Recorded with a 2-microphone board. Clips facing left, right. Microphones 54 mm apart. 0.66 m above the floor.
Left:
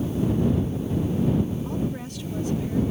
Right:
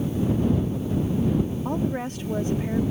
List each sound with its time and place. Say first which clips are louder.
1.6 s a woman speaking: right 3 dB; 50° right (ahead or behind)